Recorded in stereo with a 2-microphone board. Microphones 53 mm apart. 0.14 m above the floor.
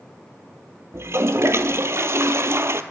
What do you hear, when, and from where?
0.9 s a toilet flushing: 55° right (ahead or behind), 0.5 m